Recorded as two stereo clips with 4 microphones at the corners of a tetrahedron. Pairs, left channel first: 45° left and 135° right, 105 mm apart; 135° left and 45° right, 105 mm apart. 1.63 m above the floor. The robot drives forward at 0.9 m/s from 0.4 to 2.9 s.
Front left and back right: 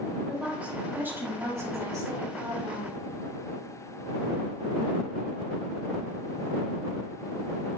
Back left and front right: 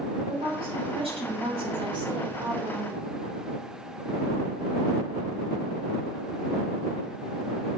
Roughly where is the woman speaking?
Ahead right.